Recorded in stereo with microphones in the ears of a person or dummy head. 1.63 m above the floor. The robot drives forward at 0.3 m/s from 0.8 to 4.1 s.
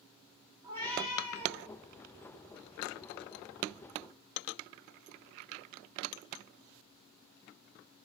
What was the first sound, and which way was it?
A cat meowing, 25° right (ahead or behind).